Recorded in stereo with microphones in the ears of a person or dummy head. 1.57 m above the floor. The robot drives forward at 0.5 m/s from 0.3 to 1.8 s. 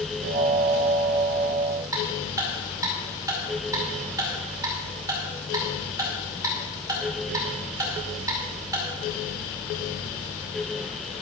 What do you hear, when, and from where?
1.9 s ticking: 20° right (ahead or behind), 2.5 m